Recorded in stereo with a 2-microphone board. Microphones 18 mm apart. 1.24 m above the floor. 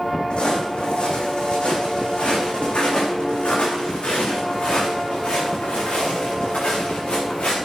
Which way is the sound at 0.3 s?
60° left (ahead or behind).